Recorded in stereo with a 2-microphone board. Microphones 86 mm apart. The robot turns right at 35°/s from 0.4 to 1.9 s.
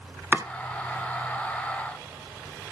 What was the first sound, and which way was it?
Chopping, 20° right (ahead or behind).